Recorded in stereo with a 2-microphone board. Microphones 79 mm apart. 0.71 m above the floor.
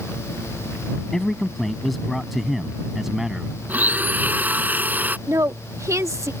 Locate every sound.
1.1 s a man speaking: 5° left (ahead or behind); by 3.6 s 5° right (ahead or behind)
3.7 s a blender: 20° right (ahead or behind)
5.3 s a woman speaking: 35° right (ahead or behind)